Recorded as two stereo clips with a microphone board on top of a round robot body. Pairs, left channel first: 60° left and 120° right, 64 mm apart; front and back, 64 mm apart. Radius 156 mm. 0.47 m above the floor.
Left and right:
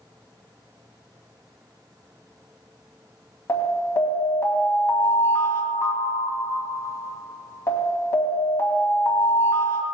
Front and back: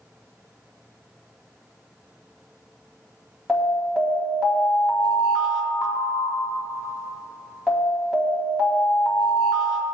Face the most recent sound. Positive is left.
turn(degrees=95)